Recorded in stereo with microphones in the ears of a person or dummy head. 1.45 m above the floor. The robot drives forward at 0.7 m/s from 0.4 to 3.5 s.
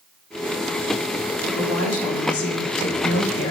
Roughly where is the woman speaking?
Left.